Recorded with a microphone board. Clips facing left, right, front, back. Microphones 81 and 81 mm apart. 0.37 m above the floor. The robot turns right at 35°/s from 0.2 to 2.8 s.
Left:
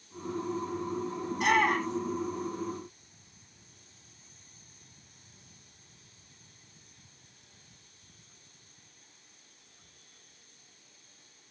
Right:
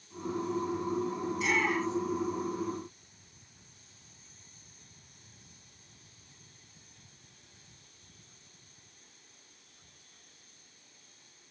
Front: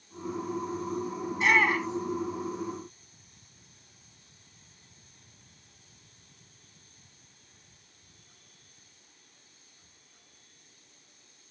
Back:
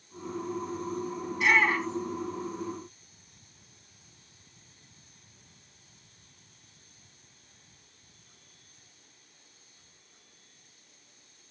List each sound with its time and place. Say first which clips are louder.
1.3 s a shout: left 6 dB, even; 60° left, 2.5 m; by 2.2 s 90° left, 2.5 m